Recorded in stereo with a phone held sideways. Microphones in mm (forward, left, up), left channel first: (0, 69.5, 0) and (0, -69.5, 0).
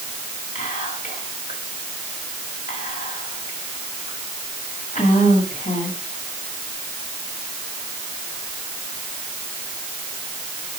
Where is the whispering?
80° left, 1.9 m.